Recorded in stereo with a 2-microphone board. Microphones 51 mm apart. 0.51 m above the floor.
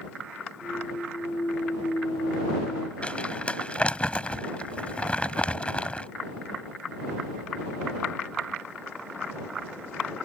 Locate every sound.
0.6 s a clunk: 80° left
3.0 s crumpling: 25° left (ahead or behind)